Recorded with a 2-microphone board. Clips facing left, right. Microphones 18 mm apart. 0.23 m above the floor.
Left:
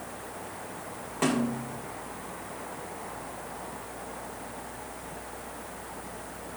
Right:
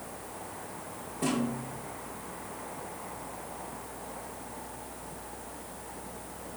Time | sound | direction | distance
1.2 | a snare drum | 80° left | 3 m